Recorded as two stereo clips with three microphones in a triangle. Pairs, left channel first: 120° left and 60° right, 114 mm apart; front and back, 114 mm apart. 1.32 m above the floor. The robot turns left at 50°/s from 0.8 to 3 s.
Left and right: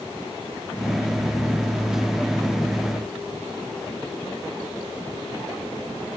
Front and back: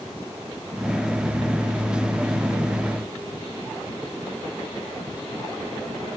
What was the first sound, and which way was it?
Only background noise.